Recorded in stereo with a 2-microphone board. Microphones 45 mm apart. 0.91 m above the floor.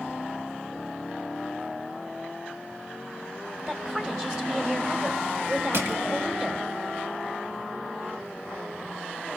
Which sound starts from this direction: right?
Crushing, at 5.7 s.